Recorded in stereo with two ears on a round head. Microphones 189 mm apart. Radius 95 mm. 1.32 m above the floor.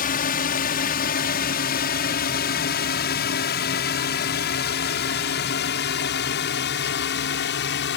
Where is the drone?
45° left (ahead or behind); by 8.0 s 60° left (ahead or behind).